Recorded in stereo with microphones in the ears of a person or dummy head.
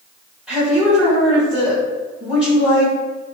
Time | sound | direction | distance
0.5 | a woman speaking | centre (ahead or behind) | 1.9 m